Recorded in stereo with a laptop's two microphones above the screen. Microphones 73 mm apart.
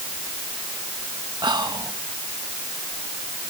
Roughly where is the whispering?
Right.